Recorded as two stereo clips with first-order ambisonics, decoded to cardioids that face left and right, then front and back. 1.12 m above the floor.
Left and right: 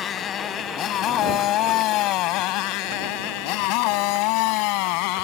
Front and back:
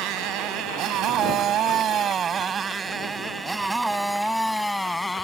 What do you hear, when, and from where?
0.0 s a motorcycle: 150° left; by 5.2 s 85° left